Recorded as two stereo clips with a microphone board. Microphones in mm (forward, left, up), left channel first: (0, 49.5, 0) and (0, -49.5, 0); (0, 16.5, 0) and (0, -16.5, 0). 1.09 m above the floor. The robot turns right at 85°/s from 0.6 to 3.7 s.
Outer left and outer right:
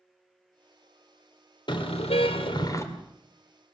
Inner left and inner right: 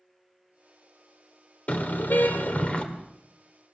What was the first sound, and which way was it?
A car horn, 50° left.